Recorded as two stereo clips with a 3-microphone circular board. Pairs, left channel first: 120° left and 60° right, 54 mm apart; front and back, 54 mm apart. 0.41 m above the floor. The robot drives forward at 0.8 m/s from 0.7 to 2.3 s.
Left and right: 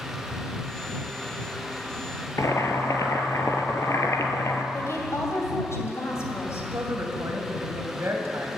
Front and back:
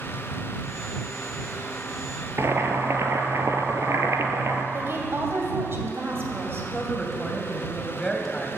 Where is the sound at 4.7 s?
140° left, 2.5 m.